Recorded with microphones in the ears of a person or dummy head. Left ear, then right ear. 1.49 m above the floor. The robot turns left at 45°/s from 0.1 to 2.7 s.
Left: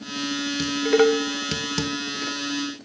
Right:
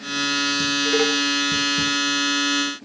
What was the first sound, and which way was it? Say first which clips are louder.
Dishes clattering: left 4 dB; 5° left (ahead or behind).